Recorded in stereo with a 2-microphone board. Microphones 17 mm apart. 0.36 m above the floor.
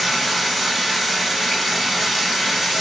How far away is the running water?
About 0.9 m.